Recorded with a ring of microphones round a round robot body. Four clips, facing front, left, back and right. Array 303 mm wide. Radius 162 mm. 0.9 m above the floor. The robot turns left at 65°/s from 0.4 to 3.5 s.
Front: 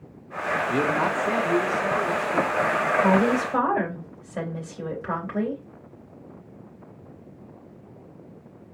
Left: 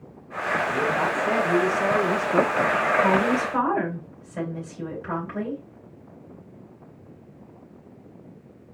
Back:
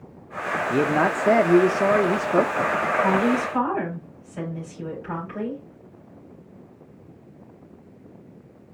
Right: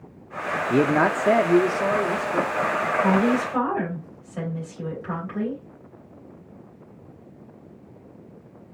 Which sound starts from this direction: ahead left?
A woman speaking, at 3.0 s.